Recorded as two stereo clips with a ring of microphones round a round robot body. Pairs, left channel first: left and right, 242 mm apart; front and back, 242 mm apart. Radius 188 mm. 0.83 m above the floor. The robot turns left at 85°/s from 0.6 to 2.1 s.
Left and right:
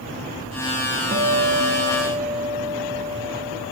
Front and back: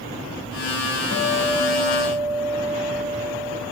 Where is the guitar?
45° right, 1.9 m; by 3.6 s 130° right, 1.9 m.